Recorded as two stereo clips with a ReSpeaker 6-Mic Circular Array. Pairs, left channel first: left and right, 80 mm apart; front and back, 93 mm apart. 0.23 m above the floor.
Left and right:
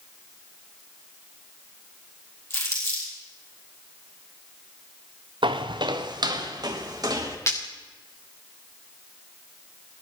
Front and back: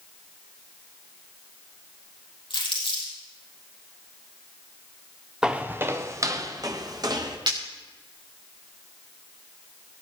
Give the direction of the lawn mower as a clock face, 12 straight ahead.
No lawn mower in this recording.